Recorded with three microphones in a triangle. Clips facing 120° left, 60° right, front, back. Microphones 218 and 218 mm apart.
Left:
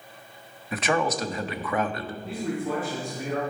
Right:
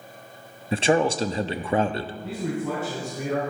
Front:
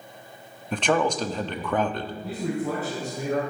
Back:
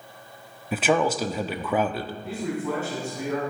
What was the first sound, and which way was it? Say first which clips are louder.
A man speaking: right 5 dB, back 1 dB; 100° right.